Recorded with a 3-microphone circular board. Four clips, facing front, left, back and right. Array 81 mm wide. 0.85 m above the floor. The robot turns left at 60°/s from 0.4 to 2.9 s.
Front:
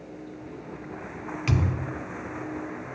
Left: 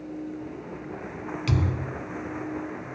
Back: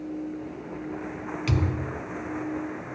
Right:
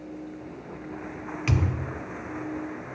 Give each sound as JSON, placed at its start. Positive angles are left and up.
{"t": 1.5, "sound": "a thud", "azimuth_deg": -65, "distance_m": 0.8}